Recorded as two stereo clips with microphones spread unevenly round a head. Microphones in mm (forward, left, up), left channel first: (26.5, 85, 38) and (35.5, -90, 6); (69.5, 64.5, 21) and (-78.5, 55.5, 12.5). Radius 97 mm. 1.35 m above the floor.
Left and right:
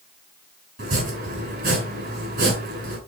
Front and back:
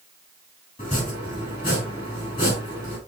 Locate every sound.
0.8 s chopping: 60° right, 6.5 m